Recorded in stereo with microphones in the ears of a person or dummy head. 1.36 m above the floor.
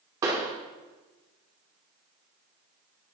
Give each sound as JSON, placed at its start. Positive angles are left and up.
{"t": 0.2, "sound": "a pop", "side_deg": -20, "distance_m": 1.1}